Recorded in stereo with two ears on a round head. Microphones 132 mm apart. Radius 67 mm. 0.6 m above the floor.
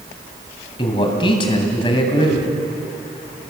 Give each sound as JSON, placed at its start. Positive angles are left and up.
{"t": 0.8, "sound": "a man speaking", "side_deg": 35, "distance_m": 3.0}